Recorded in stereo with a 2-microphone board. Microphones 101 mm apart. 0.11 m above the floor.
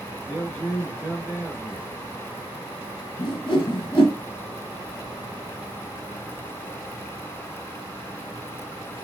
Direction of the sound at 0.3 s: 25° left (ahead or behind).